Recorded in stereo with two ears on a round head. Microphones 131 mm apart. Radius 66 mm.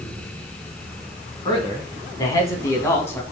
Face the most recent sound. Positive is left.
turn(degrees=15)  # may be behind; listen again after turning